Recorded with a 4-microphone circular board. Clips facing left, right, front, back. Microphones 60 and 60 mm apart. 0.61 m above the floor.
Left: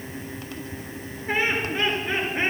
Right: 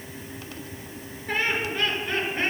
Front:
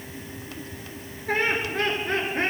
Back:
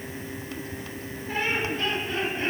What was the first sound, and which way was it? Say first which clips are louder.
Laughter: left 2 dB, front 3 dB; 20° left.